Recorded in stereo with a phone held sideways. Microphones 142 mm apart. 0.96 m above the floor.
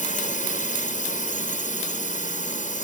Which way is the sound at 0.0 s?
65° left (ahead or behind).